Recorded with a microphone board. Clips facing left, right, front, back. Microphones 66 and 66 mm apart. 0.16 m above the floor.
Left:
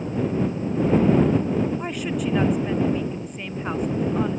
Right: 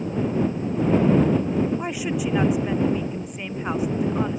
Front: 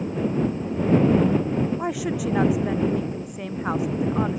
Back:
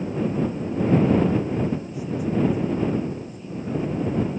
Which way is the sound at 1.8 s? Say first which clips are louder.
Right 1 dB, front 3 dB; 5° right.